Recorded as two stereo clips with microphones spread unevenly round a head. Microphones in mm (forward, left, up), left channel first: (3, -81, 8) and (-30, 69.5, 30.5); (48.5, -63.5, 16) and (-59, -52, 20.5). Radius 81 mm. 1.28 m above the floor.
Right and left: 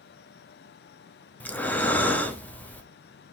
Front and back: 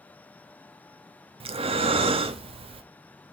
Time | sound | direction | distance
1.4 | breathing | 155° right | 0.6 m